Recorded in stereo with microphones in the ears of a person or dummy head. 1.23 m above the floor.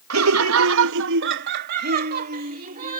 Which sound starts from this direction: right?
Laughter, at 0.1 s.